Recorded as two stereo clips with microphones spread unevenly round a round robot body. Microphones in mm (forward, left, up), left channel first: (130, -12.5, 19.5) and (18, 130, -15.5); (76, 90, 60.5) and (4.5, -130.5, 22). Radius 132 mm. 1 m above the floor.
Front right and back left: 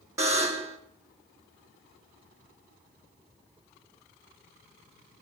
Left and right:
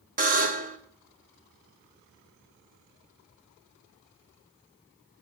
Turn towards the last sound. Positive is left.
turn(degrees=-160)